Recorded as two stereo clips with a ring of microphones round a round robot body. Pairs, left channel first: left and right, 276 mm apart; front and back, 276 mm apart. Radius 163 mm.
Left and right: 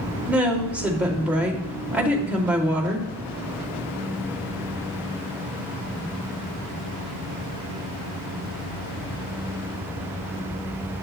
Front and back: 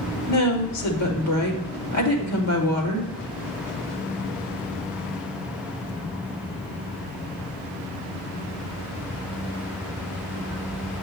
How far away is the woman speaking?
About 2.5 m.